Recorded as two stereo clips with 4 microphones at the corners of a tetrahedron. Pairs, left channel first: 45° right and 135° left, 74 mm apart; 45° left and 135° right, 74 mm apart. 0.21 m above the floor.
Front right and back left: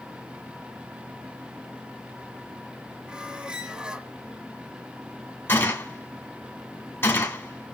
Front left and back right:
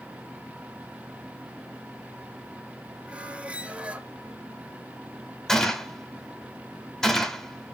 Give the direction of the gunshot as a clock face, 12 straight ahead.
1 o'clock.